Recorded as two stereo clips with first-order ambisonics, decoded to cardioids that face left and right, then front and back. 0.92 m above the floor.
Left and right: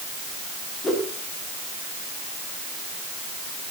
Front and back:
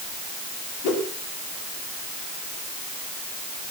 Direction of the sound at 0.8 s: 15° left.